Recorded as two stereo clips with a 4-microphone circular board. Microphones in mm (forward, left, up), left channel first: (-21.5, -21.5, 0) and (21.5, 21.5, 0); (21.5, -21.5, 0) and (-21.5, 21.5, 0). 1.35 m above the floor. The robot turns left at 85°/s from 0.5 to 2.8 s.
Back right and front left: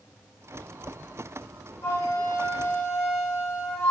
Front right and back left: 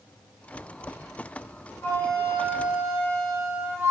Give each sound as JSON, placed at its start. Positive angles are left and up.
{"t": 1.8, "sound": "a flute", "azimuth_deg": -100, "distance_m": 0.6}